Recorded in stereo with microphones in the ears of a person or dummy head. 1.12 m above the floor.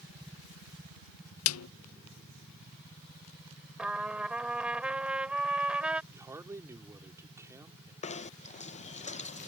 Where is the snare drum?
85° left.